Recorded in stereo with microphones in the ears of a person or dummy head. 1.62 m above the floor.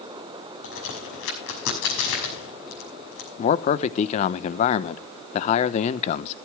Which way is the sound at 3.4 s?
35° left (ahead or behind).